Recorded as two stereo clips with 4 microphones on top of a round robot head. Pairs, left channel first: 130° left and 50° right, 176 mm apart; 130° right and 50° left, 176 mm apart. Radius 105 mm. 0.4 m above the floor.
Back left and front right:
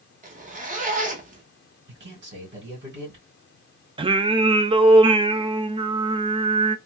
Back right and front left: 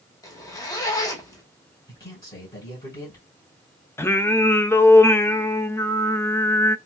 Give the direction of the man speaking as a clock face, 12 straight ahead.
2 o'clock.